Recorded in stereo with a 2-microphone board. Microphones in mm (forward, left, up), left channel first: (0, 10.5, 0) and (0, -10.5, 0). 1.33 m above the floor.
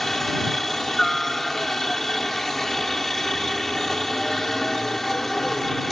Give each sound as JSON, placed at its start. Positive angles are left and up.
{"t": 0.0, "sound": "a helicopter", "side_deg": 15}